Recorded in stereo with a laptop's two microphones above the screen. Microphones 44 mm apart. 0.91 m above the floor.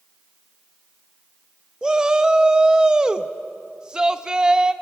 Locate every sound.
1.8 s a shout: 20° right (ahead or behind), 0.6 m